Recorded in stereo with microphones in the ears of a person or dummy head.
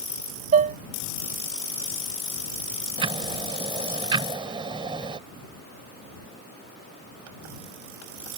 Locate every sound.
0.5 s dishes clattering: 40° right (ahead or behind)
3.0 s ticking: 25° right (ahead or behind)